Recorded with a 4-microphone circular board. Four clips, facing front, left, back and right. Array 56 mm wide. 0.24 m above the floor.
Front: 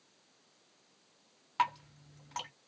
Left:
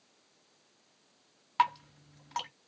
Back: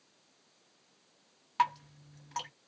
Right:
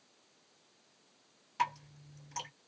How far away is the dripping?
About 2 m.